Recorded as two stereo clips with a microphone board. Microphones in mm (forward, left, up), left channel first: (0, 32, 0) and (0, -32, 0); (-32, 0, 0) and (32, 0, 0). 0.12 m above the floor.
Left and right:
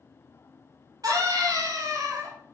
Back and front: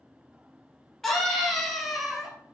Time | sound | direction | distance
1.0 | a scream | 95° right | 3.5 m